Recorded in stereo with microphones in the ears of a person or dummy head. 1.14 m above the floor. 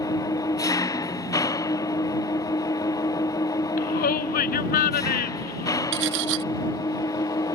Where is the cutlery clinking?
65° right (ahead or behind).